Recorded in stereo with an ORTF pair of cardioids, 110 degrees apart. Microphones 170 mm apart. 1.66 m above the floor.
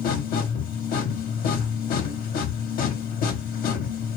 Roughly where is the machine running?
Ahead left.